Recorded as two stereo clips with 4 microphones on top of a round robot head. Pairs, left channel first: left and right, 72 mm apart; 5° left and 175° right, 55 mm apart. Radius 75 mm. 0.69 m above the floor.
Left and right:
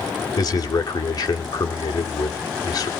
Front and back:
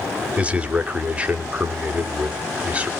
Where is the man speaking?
115° left, 2.5 m.